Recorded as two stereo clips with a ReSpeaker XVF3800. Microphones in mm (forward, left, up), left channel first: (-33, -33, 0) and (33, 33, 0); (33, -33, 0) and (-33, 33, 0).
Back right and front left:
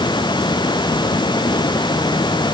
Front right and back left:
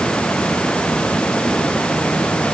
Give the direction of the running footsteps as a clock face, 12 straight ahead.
No running footsteps in this recording.